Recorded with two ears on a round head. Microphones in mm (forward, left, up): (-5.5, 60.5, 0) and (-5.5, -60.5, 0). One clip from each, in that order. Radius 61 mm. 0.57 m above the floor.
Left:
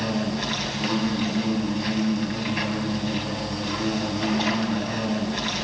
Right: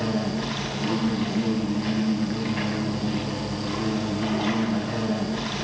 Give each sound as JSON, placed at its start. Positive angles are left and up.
{"t": 0.0, "sound": "an insect", "side_deg": 75, "distance_m": 5.0}